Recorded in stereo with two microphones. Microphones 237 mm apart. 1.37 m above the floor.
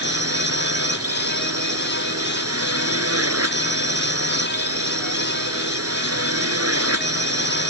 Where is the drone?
80° right.